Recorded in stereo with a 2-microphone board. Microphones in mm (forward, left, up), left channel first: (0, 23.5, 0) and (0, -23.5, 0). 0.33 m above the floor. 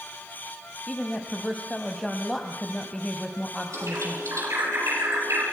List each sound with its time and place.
0.9 s a woman speaking: 10° left (ahead or behind), 2.5 m
3.7 s a bird: 80° right, 6.5 m